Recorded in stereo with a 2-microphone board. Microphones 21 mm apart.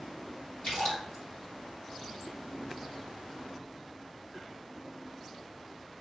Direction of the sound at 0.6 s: 55° left (ahead or behind).